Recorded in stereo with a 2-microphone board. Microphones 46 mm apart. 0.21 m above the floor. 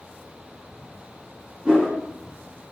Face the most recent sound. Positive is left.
turn(degrees=-25)  # may be behind; listen again after turning